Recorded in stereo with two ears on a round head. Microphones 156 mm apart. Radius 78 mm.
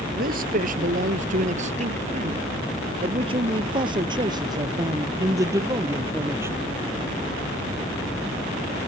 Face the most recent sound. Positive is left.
turn(degrees=-15)  # may be behind; listen again after turning